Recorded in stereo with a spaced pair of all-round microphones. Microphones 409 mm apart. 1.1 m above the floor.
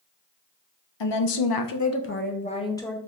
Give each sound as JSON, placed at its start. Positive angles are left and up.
{"t": 1.0, "sound": "a woman speaking", "side_deg": 85, "distance_m": 0.6}